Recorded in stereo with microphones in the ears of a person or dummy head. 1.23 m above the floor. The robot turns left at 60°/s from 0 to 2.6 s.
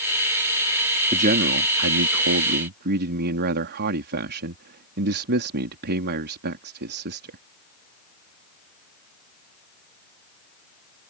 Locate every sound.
1.1 s a man speaking: 35° right; by 7.4 s 125° right